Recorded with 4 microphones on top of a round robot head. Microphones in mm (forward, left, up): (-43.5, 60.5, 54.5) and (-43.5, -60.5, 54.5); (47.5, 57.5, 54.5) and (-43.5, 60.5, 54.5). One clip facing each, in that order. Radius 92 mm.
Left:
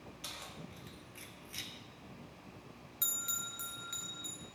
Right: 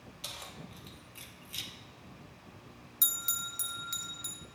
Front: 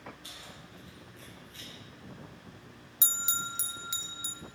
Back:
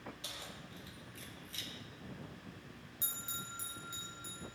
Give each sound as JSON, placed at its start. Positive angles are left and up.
{"t": 0.2, "sound": "keys jangling", "azimuth_deg": -155, "distance_m": 3.0}
{"t": 3.0, "sound": "a bell", "azimuth_deg": -25, "distance_m": 0.7}